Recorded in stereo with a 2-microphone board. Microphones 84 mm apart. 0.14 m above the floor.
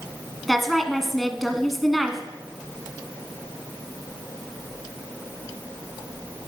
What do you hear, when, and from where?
0.5 s a woman speaking: centre (ahead or behind), 1.4 m